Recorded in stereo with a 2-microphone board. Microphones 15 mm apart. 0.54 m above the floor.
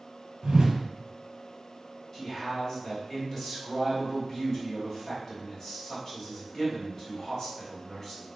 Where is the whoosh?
60° right (ahead or behind), 0.8 m.